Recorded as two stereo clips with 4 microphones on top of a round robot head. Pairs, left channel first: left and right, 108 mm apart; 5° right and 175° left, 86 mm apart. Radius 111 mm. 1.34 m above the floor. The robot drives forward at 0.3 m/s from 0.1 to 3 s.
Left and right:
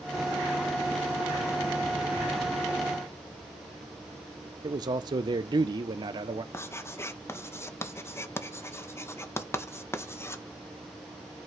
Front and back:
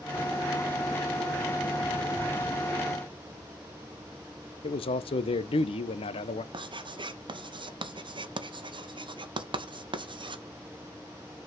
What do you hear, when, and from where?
4.6 s a man speaking: 30° right, 0.6 m
6.5 s writing: 155° left, 1.0 m